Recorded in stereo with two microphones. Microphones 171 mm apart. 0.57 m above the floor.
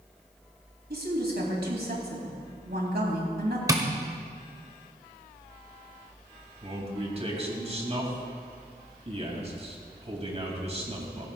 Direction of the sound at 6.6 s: 35° right (ahead or behind).